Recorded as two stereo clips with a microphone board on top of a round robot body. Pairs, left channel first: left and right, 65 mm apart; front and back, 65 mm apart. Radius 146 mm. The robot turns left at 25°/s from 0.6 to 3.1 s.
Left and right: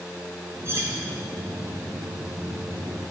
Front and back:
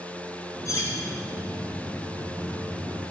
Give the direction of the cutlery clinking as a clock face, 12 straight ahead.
1 o'clock.